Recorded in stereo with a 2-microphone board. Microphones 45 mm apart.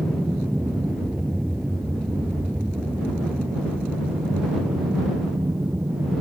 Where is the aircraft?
10° right (ahead or behind); by 6.2 s 55° right (ahead or behind).